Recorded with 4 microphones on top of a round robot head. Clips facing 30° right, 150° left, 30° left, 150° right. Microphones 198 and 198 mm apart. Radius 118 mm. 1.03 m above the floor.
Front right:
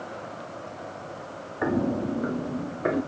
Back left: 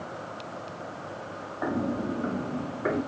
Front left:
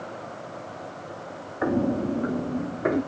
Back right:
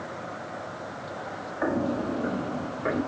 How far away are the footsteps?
About 1.5 m.